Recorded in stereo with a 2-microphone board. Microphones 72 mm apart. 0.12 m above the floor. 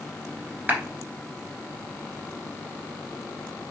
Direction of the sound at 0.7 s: 25° right (ahead or behind).